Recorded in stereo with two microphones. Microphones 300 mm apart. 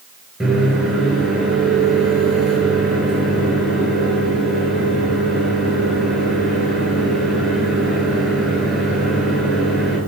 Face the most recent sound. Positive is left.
turn(degrees=0)  # may be behind; listen again after turning